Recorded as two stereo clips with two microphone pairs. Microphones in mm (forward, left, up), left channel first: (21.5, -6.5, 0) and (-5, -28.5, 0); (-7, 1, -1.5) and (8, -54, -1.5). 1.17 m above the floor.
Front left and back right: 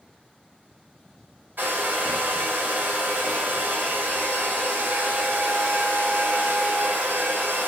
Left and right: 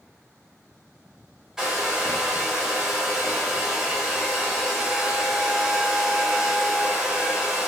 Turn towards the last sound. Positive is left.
turn(degrees=-150)